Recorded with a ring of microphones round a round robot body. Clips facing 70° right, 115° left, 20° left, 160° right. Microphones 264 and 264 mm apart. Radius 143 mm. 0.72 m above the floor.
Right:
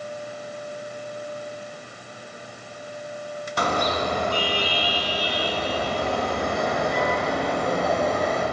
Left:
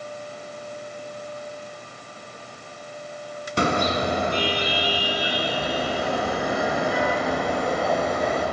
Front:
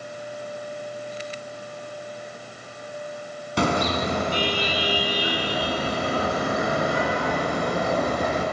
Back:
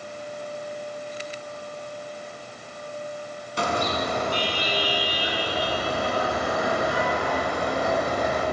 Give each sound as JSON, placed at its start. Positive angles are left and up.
{"t": 3.6, "sound": "a car horn", "azimuth_deg": 50, "distance_m": 4.0}